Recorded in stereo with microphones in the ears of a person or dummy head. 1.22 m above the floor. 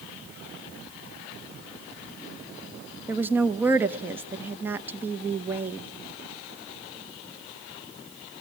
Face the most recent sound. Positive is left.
turn(degrees=-10)  # may be behind; listen again after turning